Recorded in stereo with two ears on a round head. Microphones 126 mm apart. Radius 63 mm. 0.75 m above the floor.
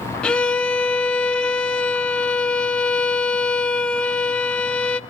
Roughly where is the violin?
Centre.